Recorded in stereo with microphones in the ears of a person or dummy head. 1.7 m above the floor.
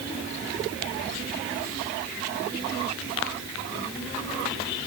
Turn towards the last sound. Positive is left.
No sound to turn to.